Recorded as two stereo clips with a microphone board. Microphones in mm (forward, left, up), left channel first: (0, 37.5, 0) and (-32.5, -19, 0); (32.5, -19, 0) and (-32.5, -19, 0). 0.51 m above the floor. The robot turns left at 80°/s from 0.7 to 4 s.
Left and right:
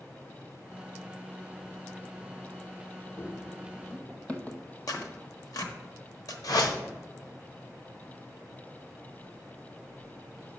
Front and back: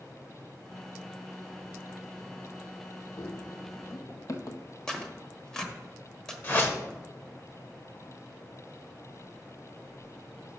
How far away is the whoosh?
About 1.0 m.